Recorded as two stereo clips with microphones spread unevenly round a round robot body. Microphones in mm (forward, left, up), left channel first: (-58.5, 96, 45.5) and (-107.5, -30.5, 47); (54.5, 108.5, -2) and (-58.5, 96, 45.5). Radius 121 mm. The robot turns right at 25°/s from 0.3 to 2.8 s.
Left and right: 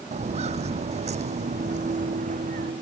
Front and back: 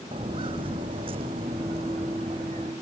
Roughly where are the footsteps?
Behind right.